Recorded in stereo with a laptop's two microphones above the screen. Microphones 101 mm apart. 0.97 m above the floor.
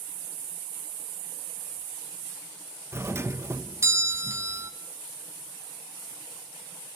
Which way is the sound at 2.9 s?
25° right (ahead or behind).